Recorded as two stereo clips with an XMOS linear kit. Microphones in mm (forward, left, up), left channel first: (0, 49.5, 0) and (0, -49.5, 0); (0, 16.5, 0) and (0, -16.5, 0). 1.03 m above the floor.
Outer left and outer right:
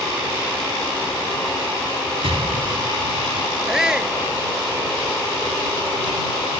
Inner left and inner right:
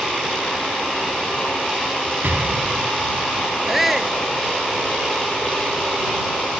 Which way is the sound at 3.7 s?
5° right (ahead or behind).